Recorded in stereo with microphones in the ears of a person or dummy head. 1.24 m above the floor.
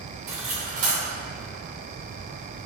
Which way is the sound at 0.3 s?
45° right (ahead or behind).